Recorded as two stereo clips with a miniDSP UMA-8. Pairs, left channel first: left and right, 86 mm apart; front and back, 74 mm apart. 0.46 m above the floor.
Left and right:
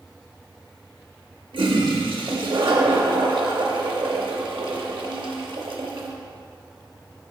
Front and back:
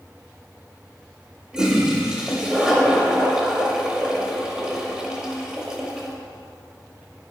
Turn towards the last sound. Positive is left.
turn(degrees=-100)